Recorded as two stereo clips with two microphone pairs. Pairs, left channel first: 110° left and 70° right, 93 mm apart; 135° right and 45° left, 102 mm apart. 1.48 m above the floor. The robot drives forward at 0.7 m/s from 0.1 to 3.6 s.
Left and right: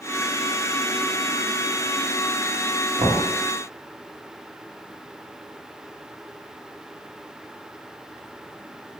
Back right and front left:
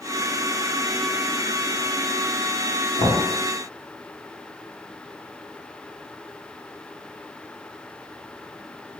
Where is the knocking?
110° right, 1.1 m; by 3.2 s 115° right, 1.2 m.